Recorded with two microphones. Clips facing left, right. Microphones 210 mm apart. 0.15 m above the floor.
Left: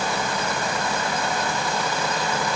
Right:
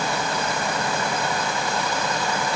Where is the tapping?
No tapping in this recording.